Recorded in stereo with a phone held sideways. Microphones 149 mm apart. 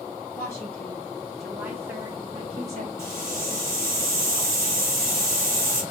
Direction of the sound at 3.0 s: 20° left (ahead or behind).